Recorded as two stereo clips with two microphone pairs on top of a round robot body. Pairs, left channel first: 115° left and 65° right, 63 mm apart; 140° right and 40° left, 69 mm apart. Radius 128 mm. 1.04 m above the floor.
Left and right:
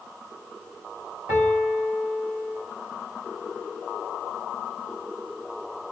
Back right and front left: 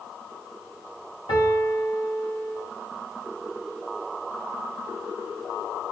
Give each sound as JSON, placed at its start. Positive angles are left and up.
{"t": 1.3, "sound": "a piano", "azimuth_deg": -130, "distance_m": 0.9}